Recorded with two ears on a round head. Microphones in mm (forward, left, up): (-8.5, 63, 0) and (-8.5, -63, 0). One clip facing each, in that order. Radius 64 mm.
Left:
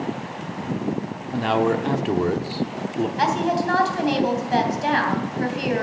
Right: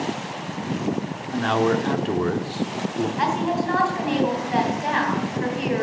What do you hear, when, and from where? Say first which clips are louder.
1.3 s a man speaking: even; 10° left (ahead or behind), 0.8 m
3.2 s a woman speaking: left 2 dB; 40° left (ahead or behind), 3 m